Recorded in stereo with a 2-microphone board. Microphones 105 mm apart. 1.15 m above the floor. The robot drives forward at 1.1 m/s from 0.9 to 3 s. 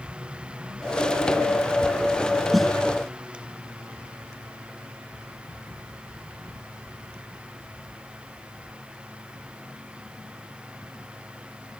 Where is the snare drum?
Centre (ahead or behind).